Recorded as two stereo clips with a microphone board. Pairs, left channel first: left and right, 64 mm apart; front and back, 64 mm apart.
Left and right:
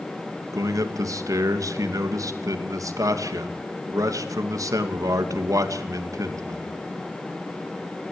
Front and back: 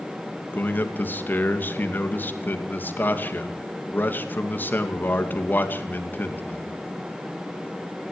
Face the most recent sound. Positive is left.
turn(degrees=-60)